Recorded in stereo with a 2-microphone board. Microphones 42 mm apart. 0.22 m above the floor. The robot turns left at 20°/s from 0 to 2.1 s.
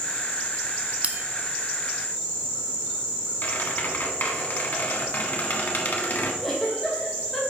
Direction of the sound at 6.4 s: 5° left (ahead or behind).